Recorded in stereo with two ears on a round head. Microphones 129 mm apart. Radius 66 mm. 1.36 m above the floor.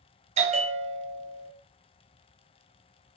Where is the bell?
45° right (ahead or behind), 0.6 m.